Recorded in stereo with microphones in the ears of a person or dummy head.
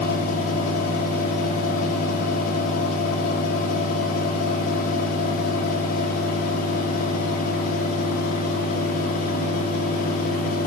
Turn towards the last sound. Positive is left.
turn(degrees=45)  # may be behind; listen again after turning